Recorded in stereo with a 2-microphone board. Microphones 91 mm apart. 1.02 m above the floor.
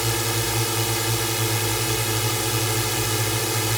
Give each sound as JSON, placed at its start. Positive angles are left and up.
{"t": 0.0, "sound": "a drone", "side_deg": 0}